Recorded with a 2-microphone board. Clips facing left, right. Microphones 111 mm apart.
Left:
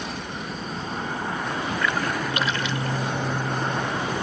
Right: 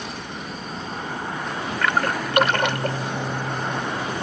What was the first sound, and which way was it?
A splash, 60° right (ahead or behind).